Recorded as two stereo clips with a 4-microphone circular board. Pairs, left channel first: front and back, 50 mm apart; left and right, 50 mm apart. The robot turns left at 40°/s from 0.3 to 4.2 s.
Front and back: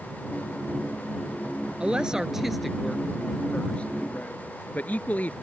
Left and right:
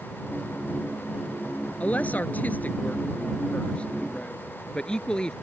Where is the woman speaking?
125° left; by 5.3 s 30° left.